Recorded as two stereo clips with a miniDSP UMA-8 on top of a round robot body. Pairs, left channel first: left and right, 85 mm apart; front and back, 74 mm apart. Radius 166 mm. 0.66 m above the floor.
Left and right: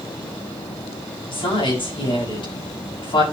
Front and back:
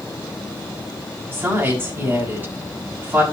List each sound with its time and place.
1.3 s a woman speaking: 110° left, 6.5 m